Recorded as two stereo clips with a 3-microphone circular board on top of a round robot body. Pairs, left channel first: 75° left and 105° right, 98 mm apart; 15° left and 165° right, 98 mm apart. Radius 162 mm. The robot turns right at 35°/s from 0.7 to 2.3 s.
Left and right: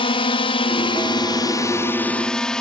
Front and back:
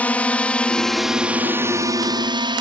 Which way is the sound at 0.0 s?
90° left.